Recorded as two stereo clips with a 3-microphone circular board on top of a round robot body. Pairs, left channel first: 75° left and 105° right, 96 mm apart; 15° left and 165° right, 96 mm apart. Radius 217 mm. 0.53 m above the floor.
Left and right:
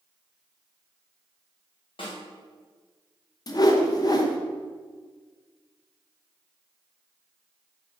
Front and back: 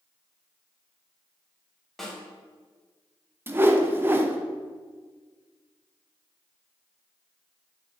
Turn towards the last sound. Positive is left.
turn(degrees=125)